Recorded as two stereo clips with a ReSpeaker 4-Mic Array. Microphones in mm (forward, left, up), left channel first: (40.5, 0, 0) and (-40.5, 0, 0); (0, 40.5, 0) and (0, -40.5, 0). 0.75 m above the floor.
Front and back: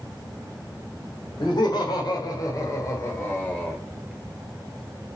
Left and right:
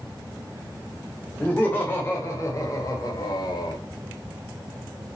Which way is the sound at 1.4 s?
25° left.